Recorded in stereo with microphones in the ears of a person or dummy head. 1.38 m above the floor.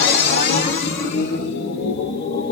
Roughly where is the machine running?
Left.